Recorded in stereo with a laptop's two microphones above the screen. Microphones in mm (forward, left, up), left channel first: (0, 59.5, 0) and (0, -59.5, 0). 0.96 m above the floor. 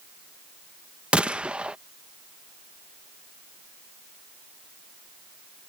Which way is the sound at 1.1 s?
10° right (ahead or behind).